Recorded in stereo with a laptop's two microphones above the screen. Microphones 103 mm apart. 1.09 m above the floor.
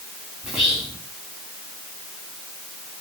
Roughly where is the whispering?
Centre.